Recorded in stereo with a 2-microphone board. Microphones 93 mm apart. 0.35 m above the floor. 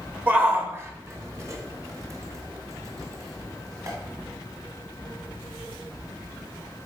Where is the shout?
20° right (ahead or behind), 0.9 m; by 4.0 s 35° right (ahead or behind), 2.5 m.